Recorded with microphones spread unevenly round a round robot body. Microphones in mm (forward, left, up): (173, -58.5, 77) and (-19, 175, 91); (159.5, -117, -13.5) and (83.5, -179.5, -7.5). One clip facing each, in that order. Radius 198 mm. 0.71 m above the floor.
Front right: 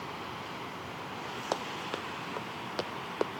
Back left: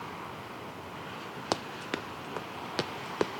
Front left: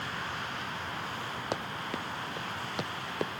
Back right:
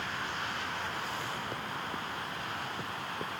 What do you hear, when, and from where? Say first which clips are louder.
1.5 s running footsteps: back left 3 dB, front left 2 dB; 80° left; by 3.3 s 70° left